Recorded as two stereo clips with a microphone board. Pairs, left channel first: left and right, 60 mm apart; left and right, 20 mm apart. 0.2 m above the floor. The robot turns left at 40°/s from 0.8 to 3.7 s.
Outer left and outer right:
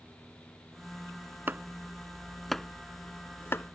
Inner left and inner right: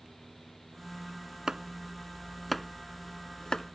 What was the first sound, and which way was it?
Chopping, 35° right (ahead or behind).